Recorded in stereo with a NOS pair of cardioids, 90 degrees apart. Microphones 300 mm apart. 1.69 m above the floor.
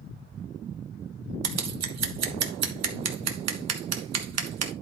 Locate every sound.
1.4 s scissors: 60° right, 1.4 m